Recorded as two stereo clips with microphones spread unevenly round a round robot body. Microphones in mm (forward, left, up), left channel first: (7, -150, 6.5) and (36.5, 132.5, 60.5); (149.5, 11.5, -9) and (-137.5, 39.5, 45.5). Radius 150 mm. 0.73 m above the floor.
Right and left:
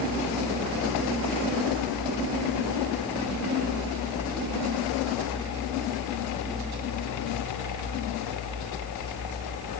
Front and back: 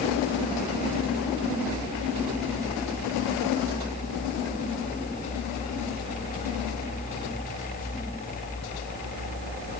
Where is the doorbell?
I don't hear a doorbell.